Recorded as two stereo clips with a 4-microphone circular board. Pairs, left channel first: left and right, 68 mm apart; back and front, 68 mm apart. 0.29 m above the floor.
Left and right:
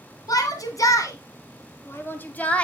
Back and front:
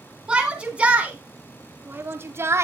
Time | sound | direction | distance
0.3 | a shout | 75° left | 2.5 m